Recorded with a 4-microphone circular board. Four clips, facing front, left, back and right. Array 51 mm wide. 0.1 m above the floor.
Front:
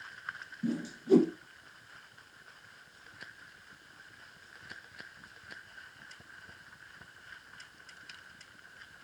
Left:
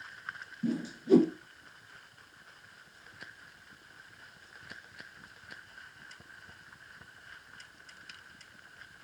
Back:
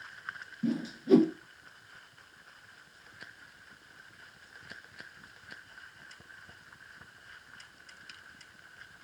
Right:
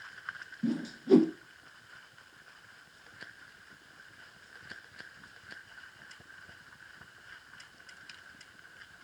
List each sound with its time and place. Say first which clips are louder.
0.6 s a whoosh: right 1 dB, back 1 dB; 150° right, 0.8 m